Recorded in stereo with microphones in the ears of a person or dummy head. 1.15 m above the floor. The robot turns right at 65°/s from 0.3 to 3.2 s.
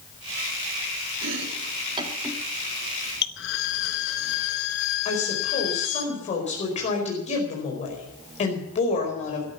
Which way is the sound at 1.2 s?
75° right (ahead or behind).